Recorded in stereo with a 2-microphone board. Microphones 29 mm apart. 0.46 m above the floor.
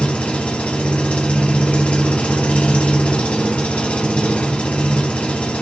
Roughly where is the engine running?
Left.